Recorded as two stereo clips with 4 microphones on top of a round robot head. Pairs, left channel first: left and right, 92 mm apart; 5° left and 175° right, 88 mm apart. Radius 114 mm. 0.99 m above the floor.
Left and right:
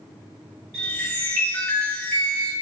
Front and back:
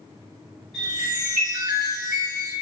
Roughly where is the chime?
Right.